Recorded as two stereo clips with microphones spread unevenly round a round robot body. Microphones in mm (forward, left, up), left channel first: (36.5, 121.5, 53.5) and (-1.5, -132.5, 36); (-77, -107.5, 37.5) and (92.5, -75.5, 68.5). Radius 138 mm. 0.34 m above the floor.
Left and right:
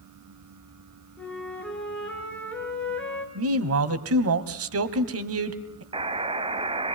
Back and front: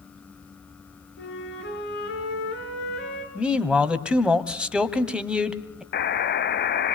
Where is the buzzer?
165° right, 1.5 m.